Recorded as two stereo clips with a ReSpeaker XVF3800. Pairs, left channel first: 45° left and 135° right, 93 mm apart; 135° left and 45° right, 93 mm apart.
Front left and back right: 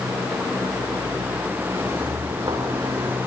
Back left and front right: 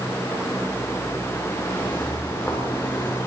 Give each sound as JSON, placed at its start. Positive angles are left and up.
{"t": 1.7, "sound": "footsteps", "azimuth_deg": -140, "distance_m": 6.0}